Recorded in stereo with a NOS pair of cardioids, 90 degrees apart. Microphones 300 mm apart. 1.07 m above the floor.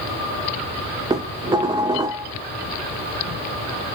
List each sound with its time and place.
1.1 s dishes clattering: 15° right, 0.5 m